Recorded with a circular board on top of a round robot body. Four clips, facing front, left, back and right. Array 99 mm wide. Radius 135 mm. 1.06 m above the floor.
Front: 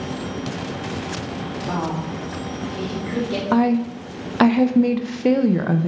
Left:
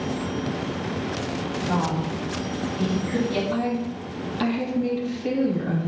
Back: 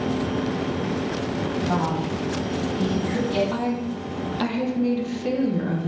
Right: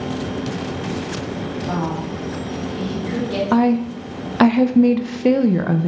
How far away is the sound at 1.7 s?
About 3.5 m.